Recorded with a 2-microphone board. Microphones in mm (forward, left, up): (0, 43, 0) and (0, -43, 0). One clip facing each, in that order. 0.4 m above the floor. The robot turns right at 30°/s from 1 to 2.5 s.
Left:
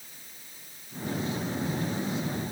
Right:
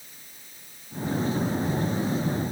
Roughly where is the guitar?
I don't hear a guitar.